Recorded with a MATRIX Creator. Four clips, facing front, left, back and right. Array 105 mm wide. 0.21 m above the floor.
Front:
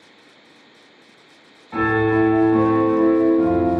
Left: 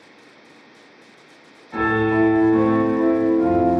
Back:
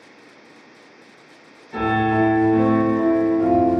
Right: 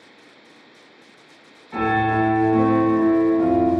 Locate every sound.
1.7 s a piano: 10° right, 1.2 m